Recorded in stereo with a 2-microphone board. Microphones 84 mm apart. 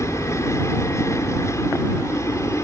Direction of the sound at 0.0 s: 35° left (ahead or behind).